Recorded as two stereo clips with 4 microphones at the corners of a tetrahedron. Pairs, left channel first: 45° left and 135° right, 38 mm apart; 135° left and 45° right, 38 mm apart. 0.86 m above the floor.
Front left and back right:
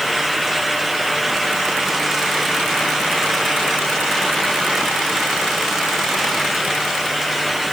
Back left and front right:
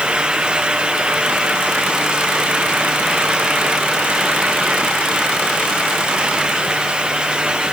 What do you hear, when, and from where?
Only background noise.